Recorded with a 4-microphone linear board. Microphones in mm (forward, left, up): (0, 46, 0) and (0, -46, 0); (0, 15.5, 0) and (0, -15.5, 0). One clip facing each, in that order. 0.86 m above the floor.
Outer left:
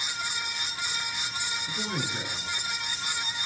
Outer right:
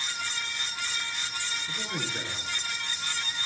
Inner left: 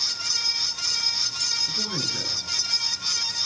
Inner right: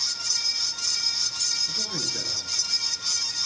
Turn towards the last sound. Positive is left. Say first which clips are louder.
# outer left 2 dB, inner left 2 dB
turn(degrees=60)  # may be behind; listen again after turning